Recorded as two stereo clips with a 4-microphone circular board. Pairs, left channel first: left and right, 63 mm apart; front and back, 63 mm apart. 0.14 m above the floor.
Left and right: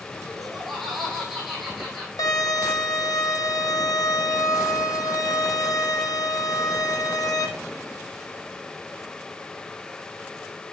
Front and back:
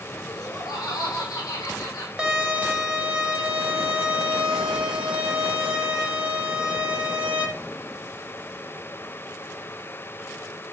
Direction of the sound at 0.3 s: 5° left.